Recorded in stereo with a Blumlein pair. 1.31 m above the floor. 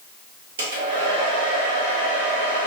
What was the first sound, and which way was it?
A hair dryer, 60° right.